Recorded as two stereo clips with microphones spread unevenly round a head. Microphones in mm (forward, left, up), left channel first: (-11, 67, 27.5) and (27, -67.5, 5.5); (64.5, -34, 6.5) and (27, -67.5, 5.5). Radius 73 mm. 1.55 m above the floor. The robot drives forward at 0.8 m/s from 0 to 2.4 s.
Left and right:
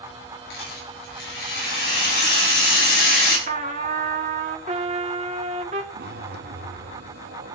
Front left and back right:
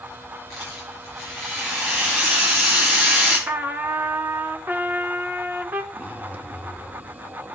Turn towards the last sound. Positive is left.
turn(degrees=-90)